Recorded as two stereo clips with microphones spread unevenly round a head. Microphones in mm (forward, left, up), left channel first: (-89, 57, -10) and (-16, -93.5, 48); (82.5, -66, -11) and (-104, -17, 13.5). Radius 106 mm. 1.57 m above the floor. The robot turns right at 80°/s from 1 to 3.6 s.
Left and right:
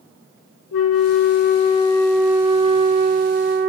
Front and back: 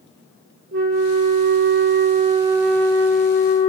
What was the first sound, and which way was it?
A flute, 120° left.